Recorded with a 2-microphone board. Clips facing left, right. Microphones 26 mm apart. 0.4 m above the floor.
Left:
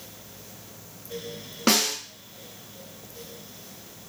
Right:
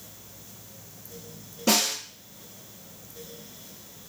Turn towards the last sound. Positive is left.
turn(degrees=65)  # may be behind; listen again after turning